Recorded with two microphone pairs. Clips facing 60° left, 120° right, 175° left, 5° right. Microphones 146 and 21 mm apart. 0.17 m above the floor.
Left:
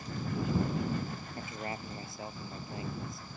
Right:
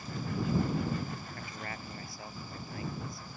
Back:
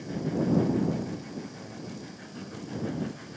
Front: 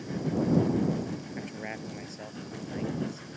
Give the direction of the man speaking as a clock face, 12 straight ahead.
12 o'clock.